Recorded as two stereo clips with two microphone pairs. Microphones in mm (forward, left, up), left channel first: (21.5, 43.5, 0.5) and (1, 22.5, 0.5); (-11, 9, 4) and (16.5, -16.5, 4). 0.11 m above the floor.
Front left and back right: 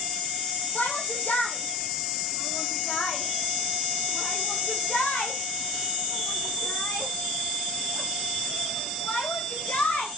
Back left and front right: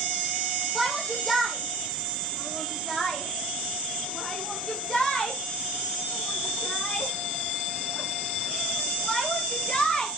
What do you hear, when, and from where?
0.8 s a shout: 45° left, 4 m; by 10.1 s 70° left, 10.5 m